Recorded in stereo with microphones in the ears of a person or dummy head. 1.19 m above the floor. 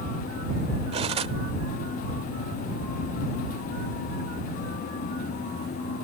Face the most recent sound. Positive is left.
turn(degrees=-30)  # may be behind; listen again after turning